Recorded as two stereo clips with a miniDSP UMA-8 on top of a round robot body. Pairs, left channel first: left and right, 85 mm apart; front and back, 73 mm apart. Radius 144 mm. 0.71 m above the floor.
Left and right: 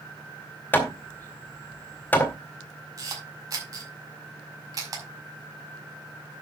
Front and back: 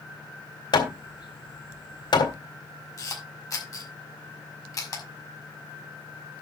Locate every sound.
0.7 s hammering: 20° left, 2.5 m
3.0 s a camera shutter: 40° right, 5.5 m